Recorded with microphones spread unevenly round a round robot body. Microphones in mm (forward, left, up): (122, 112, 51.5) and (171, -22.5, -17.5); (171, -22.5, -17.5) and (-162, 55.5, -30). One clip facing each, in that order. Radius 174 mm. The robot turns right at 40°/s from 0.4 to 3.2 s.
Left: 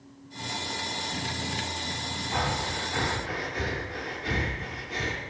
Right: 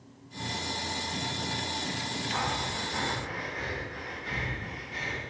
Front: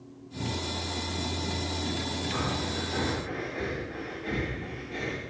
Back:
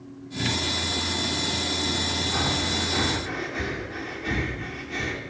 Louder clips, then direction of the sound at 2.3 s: Left 5 dB, back 3 dB; 85° left.